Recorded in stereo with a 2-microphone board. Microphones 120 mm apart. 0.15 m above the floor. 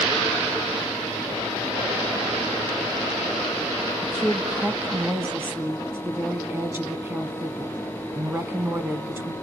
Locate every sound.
4.0 s a woman speaking: 20° right (ahead or behind), 1.0 m